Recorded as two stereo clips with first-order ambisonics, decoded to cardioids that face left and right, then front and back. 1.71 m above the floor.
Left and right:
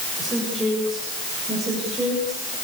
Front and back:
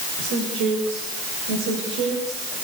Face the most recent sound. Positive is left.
turn(degrees=-170)